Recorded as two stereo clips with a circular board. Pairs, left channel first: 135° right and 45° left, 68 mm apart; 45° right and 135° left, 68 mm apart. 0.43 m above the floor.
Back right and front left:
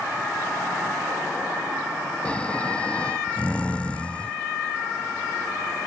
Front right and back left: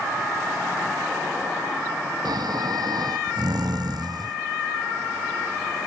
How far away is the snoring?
About 0.8 m.